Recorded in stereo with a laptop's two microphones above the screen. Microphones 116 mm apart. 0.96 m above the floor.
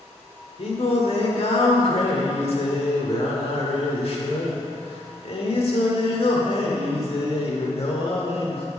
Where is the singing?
55° left (ahead or behind), 1.5 m.